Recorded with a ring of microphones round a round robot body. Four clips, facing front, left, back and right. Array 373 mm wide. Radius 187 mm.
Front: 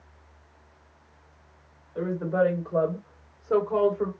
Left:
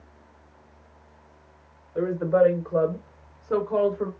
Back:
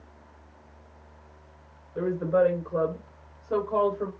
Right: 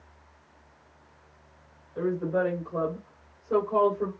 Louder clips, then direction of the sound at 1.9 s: Left 6 dB, back 2 dB; 80° left.